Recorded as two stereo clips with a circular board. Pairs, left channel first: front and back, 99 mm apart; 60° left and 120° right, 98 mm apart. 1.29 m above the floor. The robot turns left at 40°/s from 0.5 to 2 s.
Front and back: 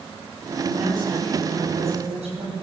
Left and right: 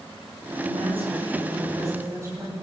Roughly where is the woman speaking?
Behind right.